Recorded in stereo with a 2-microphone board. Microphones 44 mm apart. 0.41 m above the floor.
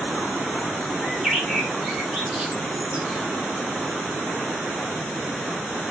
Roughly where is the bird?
Centre.